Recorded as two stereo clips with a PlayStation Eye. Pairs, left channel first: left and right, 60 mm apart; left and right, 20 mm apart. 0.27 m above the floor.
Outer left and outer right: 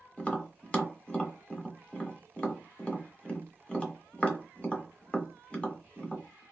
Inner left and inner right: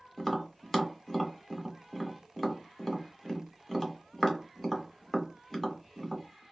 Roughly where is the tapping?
Centre.